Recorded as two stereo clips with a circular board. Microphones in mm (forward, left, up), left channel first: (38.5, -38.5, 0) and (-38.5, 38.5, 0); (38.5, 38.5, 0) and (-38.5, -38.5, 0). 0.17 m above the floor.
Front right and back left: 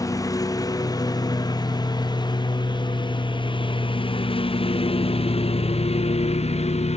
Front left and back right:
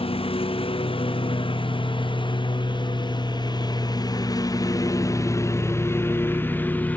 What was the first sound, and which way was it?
A lawn mower, 15° left.